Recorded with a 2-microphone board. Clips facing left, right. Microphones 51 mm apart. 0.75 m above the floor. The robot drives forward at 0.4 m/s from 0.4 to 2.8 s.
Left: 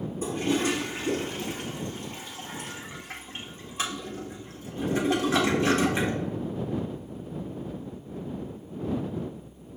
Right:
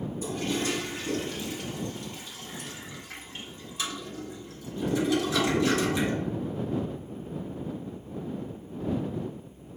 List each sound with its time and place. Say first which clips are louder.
0.2 s a toilet flushing: left 4 dB; 30° left (ahead or behind), 1.9 m; by 6.2 s 40° left (ahead or behind), 1.4 m